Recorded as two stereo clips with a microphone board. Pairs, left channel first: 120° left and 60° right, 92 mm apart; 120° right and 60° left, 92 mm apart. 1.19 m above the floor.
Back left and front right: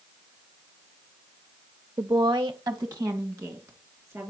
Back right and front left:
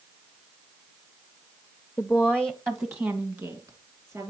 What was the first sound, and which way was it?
A woman speaking, 45° right.